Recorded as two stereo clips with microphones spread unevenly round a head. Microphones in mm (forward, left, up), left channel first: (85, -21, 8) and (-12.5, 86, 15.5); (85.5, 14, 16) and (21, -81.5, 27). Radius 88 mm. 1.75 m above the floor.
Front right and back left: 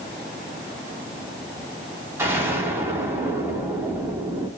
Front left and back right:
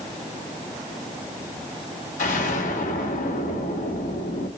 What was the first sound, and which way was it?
An explosion, 60° left.